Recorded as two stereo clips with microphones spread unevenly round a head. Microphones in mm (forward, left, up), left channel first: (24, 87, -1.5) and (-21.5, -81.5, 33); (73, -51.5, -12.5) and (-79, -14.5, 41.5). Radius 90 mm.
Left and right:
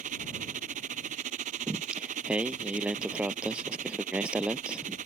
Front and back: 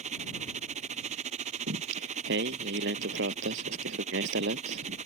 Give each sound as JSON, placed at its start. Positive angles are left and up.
{"t": 0.0, "sound": "a machine running", "azimuth_deg": -155}
{"t": 1.7, "sound": "singing", "azimuth_deg": 170}